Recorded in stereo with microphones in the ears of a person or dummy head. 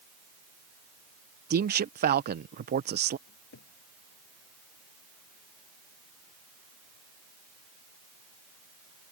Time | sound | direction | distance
1.5 | a man speaking | 45° right (ahead or behind) | ?
3.3 | a cupboard door | 60° left (ahead or behind) | ?